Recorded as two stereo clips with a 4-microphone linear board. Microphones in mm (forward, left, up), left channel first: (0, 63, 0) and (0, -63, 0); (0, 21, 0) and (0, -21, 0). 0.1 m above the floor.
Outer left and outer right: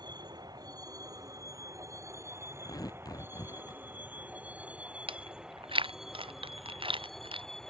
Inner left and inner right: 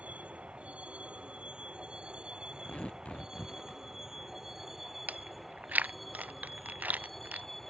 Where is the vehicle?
30° right (ahead or behind); by 7.7 s 5° left (ahead or behind).